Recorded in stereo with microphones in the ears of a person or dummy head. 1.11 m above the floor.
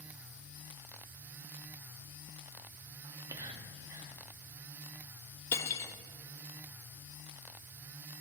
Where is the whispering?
15° right (ahead or behind), 0.7 m.